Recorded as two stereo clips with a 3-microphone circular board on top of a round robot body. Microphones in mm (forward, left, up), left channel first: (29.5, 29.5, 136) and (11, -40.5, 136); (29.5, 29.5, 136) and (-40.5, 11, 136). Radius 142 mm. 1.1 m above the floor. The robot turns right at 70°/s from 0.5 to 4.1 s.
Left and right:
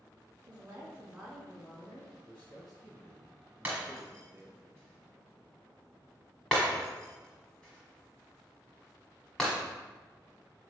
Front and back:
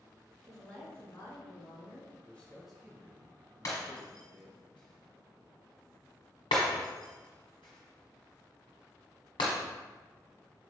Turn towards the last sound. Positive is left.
turn(degrees=-10)